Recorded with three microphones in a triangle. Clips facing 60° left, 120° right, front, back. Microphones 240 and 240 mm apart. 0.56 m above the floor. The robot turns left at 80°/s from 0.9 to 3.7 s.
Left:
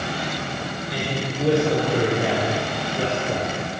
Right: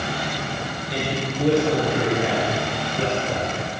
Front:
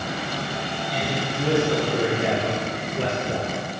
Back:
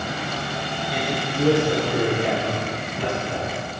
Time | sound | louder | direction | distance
0.9 | a man speaking | right 2 dB, back 1 dB | 175° right | 1.4 m